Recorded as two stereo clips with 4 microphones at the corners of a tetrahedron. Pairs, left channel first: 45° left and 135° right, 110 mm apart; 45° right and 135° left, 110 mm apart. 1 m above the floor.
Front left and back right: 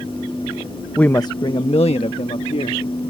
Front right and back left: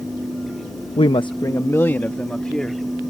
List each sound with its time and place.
1.0 s a woman speaking: 35° right; by 2.9 s 40° left